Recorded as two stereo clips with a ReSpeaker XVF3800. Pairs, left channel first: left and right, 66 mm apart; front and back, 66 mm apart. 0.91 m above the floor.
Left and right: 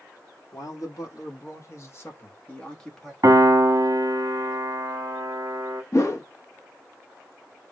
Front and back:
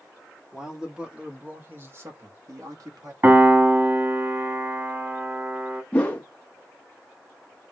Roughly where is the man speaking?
Left.